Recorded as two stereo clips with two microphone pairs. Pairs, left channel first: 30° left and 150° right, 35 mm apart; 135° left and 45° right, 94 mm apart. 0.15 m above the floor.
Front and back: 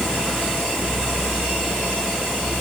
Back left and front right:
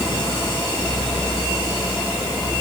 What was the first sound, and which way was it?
Only background noise.